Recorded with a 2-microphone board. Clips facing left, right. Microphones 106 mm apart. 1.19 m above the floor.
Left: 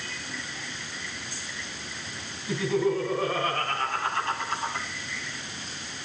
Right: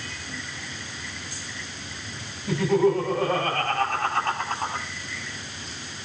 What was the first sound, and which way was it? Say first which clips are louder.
Laughter: right 5 dB; 70° right (ahead or behind).